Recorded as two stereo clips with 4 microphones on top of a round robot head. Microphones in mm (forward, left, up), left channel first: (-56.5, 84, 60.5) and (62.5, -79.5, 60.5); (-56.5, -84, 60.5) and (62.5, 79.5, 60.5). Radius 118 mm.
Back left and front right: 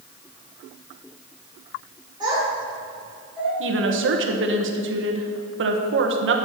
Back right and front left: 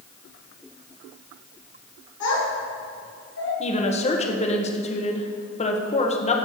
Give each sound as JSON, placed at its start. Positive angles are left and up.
{"t": 2.2, "sound": "a child speaking", "azimuth_deg": -125, "distance_m": 3.0}
{"t": 3.6, "sound": "a woman speaking", "azimuth_deg": -70, "distance_m": 1.4}